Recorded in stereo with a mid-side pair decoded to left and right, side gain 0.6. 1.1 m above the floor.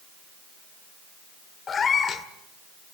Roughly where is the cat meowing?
Ahead left.